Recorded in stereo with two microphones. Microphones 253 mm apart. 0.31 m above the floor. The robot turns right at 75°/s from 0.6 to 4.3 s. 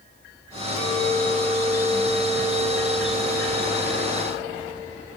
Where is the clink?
115° right, 4 m; by 4.7 s 150° left, 4 m.